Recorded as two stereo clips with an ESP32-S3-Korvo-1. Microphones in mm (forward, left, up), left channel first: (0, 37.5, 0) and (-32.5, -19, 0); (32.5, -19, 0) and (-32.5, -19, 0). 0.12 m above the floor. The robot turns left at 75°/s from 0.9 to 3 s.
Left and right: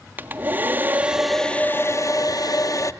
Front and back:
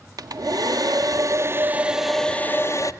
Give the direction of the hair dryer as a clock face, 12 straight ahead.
6 o'clock.